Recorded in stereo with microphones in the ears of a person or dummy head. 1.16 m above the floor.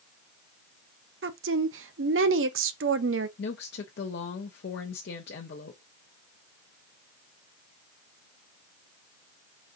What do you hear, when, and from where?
1.2 s a woman speaking: 60° right (ahead or behind), 0.7 m
3.4 s a woman speaking: 55° left (ahead or behind), 0.7 m